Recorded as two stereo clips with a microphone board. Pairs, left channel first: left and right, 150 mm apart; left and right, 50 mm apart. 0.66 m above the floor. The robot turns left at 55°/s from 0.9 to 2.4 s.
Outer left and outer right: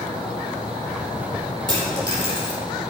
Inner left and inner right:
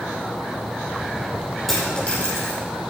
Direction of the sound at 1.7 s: 5° left (ahead or behind).